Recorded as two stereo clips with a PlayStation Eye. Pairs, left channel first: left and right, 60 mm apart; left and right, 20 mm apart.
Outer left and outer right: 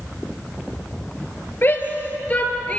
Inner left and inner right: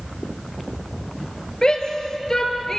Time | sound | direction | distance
1.6 | a shout | 35° left (ahead or behind) | 4.5 m